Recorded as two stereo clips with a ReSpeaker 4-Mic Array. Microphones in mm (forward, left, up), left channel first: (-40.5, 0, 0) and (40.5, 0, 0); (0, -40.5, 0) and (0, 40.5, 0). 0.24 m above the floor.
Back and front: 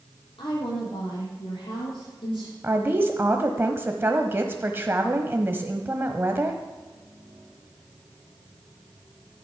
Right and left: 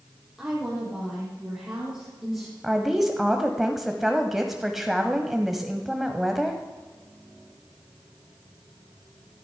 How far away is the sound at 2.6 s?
About 1.0 m.